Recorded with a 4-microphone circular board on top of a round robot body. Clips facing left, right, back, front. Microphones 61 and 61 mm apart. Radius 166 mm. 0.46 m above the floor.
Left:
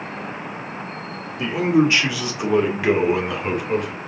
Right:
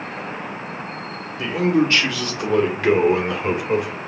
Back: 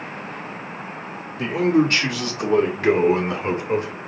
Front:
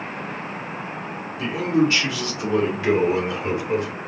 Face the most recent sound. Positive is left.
turn(degrees=-165)